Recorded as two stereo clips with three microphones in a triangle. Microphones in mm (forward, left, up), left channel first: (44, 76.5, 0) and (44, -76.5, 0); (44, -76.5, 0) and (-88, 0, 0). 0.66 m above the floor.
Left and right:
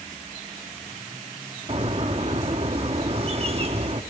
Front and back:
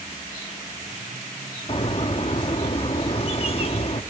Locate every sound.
1.7 s a bird: 60° right, 1.1 m